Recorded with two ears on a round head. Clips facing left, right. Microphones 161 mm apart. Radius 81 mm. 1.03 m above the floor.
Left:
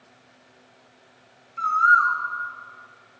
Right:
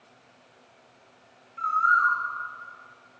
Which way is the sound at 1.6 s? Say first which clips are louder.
Left 4 dB; 65° left (ahead or behind).